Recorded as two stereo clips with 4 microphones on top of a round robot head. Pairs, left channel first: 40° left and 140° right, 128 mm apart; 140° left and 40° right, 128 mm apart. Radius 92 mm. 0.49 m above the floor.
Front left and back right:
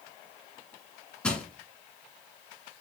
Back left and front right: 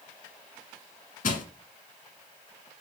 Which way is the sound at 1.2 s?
120° left.